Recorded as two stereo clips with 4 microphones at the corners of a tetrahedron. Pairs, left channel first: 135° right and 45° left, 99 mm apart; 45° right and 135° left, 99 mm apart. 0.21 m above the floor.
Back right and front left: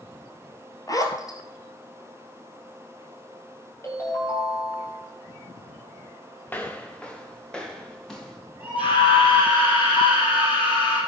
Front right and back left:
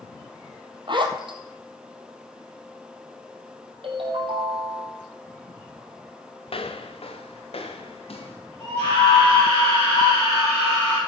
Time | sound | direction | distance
0.9 | a zipper | 170° left | 1.4 m
3.8 | a ringtone | 165° left | 3.5 m
6.5 | footsteps | 65° right | 1.3 m
8.6 | a scream | 105° right | 5.5 m